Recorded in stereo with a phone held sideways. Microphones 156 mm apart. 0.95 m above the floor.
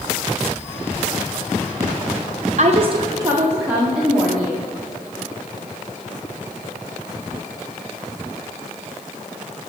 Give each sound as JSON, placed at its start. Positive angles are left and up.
{"t": 2.6, "sound": "a woman speaking", "side_deg": -55, "distance_m": 0.7}